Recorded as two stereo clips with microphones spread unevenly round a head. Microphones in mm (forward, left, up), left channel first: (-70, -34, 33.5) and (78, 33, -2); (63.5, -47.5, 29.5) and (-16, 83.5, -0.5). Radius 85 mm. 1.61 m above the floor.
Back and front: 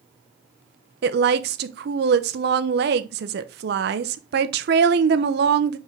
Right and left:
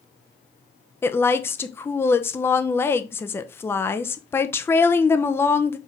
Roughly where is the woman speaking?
Ahead.